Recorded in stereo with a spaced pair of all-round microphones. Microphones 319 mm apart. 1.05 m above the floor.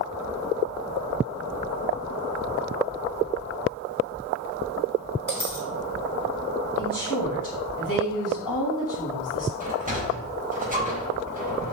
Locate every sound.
5.3 s a dropped coin: 80° left, 4 m
6.8 s a woman speaking: 75° left (ahead or behind), 6 m
9.6 s a sliding door: 25° right (ahead or behind), 5 m